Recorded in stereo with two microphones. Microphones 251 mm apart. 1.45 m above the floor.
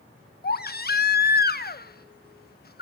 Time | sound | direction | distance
0.4 | a baby crying | 40° left (ahead or behind) | 1.1 m